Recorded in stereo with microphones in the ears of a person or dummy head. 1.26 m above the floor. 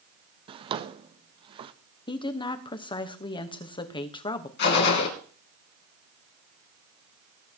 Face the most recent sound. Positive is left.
turn(degrees=60)  # may be behind; listen again after turning